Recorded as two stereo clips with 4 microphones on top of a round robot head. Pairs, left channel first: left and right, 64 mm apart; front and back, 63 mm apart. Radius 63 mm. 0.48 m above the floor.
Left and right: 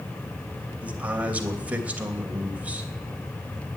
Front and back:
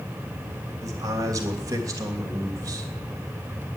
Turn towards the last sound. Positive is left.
turn(degrees=-155)